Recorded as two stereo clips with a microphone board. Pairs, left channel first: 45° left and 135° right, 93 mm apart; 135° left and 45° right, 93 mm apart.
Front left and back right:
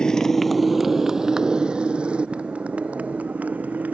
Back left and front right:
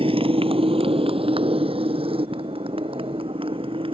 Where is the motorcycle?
35° right; by 4.0 s 60° right.